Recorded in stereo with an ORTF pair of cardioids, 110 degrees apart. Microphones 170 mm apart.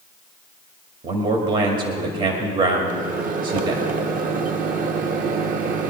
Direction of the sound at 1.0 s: 60° right.